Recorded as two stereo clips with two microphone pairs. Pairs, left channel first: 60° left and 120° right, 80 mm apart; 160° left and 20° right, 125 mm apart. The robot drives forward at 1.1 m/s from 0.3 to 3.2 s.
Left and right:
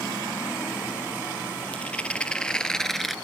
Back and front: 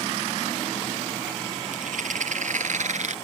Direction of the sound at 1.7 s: 15° right.